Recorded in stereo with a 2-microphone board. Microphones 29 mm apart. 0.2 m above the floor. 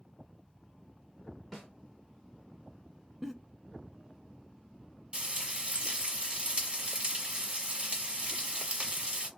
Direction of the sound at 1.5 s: 5° left (ahead or behind).